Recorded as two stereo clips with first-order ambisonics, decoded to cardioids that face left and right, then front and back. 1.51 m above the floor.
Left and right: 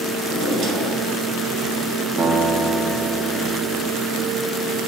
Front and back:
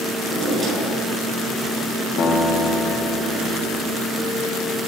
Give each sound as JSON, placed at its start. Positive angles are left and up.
{"t": 0.2, "sound": "a drawer", "azimuth_deg": -105, "distance_m": 2.5}
{"t": 2.2, "sound": "a guitar", "azimuth_deg": -40, "distance_m": 0.9}